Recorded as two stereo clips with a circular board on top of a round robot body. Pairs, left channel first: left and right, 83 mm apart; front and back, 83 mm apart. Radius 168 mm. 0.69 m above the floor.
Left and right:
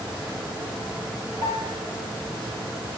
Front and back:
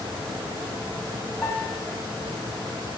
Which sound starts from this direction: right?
A piano, at 1.4 s.